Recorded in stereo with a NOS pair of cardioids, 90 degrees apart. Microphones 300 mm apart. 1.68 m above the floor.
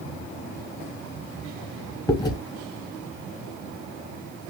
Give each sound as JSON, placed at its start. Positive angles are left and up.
{"t": 2.1, "sound": "chewing", "azimuth_deg": 15, "distance_m": 1.1}